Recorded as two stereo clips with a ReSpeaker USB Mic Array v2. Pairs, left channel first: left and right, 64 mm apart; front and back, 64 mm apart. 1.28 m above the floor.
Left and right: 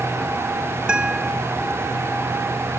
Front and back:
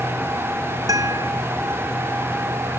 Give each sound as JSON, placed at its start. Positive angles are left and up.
{"t": 0.9, "sound": "a guitar", "azimuth_deg": -165}